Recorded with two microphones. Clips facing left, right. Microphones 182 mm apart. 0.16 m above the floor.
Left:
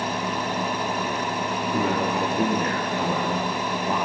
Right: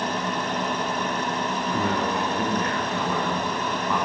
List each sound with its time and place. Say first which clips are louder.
1.7 s a man speaking: left 2 dB; 20° left (ahead or behind), 3 m; by 4.0 s 35° left (ahead or behind), 2 m